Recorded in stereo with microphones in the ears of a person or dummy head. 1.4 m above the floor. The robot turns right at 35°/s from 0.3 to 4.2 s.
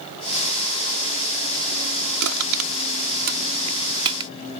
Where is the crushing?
80° right; by 4.3 s 25° right (ahead or behind).